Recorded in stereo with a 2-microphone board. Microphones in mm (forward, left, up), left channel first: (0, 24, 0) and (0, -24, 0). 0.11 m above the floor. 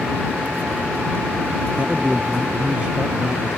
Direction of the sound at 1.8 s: 30° right (ahead or behind).